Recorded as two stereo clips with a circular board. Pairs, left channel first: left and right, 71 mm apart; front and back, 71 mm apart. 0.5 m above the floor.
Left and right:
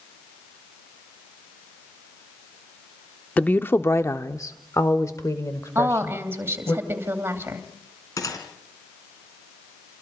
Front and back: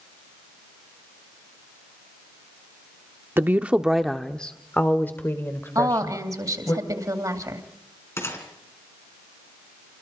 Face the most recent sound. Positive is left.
turn(degrees=55)